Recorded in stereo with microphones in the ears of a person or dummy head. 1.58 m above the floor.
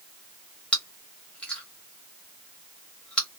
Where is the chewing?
5° left (ahead or behind), 0.8 m.